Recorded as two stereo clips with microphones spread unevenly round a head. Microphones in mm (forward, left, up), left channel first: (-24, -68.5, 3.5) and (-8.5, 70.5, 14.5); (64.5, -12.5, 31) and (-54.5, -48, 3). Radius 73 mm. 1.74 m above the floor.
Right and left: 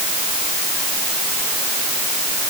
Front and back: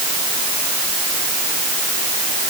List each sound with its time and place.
Only background noise.